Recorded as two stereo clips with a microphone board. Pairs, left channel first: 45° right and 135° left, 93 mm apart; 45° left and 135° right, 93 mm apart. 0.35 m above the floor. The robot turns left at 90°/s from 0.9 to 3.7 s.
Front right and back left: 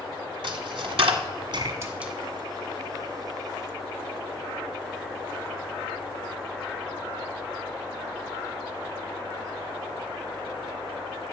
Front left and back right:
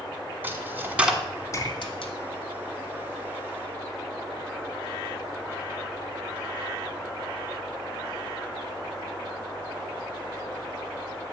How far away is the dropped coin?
About 1.3 m.